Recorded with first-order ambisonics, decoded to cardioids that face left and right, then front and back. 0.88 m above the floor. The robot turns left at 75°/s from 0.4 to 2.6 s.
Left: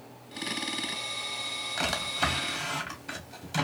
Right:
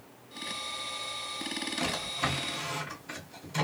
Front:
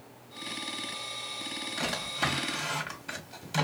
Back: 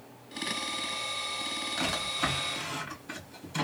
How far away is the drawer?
About 1.6 m.